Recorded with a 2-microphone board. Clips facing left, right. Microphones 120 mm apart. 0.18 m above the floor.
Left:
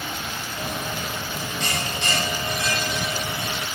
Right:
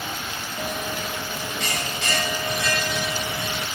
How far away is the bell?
About 1.0 m.